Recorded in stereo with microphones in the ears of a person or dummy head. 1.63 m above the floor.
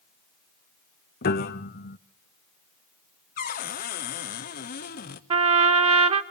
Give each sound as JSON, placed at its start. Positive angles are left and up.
{"t": 1.2, "sound": "a piano", "side_deg": 45, "distance_m": 0.7}
{"t": 3.4, "sound": "a cupboard door", "side_deg": 40, "distance_m": 0.9}
{"t": 5.3, "sound": "a trumpet", "side_deg": -30, "distance_m": 0.7}